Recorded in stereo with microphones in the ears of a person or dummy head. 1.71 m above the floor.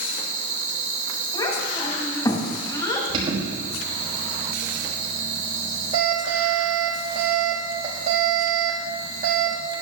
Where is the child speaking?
30° left (ahead or behind), 1.9 m.